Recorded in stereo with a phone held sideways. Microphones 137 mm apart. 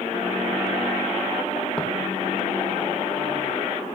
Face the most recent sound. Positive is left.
turn(degrees=10)  # may be behind; listen again after turning